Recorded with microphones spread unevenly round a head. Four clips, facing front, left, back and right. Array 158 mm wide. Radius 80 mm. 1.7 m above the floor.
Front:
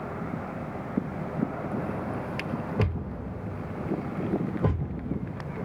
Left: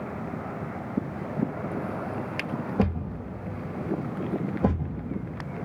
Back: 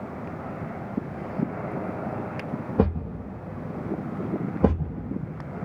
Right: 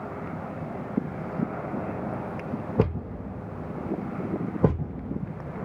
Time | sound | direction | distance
2.8 | a thud | 155° right | 1.7 m